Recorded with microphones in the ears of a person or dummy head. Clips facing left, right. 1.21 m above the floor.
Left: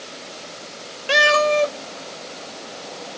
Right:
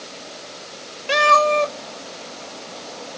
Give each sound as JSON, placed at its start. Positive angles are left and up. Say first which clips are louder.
{"t": 1.1, "sound": "a cat meowing", "louder": "even", "side_deg": 10, "distance_m": 0.7}